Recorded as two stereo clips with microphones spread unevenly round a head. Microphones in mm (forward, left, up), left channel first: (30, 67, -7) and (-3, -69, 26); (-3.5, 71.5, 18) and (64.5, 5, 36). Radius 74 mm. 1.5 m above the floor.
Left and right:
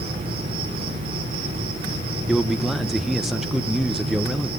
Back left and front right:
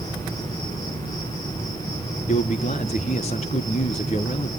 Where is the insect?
160° right, 6.5 m.